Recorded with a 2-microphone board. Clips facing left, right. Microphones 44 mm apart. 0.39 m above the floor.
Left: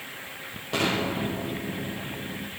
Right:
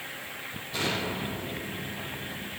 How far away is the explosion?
About 5.5 m.